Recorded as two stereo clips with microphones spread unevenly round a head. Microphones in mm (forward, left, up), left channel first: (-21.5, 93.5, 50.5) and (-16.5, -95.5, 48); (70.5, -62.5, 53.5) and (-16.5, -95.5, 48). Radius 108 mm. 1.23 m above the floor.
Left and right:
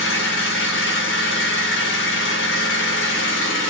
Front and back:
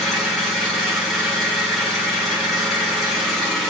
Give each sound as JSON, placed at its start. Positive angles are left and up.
{"t": 0.0, "sound": "an engine running", "azimuth_deg": 110, "distance_m": 1.7}